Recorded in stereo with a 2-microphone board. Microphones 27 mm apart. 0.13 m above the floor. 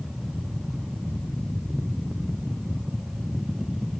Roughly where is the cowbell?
No cowbell in this recording.